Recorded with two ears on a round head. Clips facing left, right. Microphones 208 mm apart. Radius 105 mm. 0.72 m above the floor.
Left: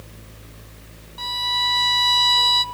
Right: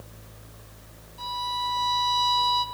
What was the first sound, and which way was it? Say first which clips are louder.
A violin: left 2 dB; 70° left (ahead or behind).